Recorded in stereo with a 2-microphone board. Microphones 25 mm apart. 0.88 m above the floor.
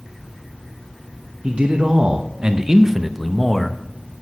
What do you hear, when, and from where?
1.4 s a man speaking: 50° right (ahead or behind), 0.8 m; by 3.8 s 10° left (ahead or behind), 0.9 m